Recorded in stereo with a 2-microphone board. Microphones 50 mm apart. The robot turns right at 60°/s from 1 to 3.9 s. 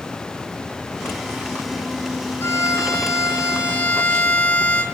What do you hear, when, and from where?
2.4 s a violin: 55° left, 4 m; by 4.8 s 145° left, 4 m